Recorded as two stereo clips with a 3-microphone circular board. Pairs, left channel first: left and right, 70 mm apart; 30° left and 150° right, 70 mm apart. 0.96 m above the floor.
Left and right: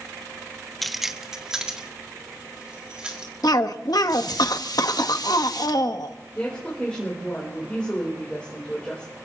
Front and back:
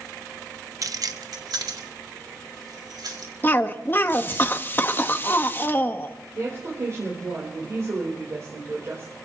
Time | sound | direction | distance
0.8 | keys jangling | 175° left | 0.6 m
3.4 | a cough | 85° left | 1.3 m
6.3 | a woman speaking | 165° left | 4 m